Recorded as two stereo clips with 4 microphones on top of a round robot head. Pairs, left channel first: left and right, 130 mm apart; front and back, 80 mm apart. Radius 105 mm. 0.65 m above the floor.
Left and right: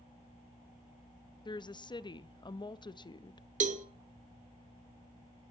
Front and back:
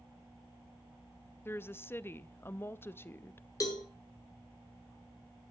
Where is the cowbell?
55° right, 1.1 m.